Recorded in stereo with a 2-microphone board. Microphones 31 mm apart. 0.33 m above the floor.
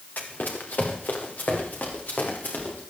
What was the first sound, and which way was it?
Running footsteps, 65° left (ahead or behind).